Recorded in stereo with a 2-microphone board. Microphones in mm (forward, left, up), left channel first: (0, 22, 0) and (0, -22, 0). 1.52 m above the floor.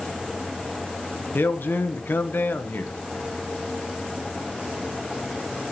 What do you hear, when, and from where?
1.3 s a man speaking: 50° left (ahead or behind), 1.0 m